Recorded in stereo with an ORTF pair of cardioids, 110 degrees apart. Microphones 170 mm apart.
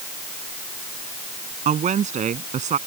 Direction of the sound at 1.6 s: 45° right.